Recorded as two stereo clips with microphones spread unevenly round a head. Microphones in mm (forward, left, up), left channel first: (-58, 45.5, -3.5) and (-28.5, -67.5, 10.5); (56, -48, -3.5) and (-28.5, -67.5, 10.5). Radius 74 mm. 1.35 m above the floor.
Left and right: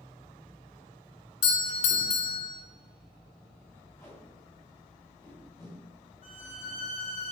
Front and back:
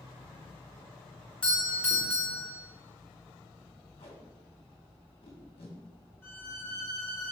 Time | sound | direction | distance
1.4 | a doorbell | 85° left | 1.5 m
4.0 | tape being pulled | 30° left | 2.5 m
6.2 | a violin | 90° left | 2 m